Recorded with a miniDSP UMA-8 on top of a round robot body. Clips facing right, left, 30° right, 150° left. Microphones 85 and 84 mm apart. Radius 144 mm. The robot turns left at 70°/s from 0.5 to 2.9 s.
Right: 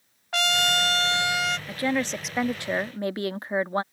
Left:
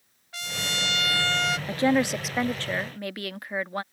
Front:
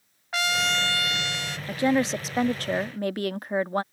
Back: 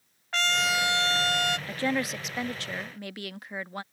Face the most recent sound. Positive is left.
turn(degrees=-40)